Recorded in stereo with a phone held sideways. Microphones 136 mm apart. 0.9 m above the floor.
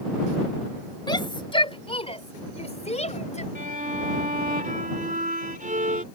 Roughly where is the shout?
Left.